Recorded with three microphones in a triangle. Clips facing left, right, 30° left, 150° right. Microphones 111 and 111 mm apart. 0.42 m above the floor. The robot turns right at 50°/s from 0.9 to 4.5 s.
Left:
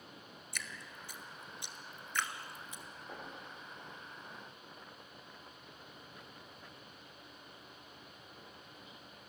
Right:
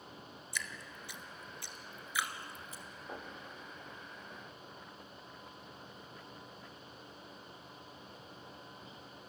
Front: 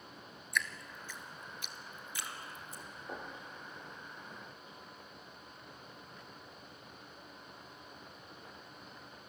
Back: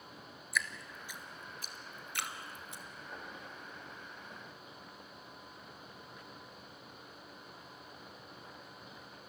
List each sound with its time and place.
0.5 s dripping: 125° left, 1.7 m; by 2.8 s 140° right, 1.7 m
3.1 s knocking: 15° right, 9.5 m; by 3.3 s straight ahead, 9.5 m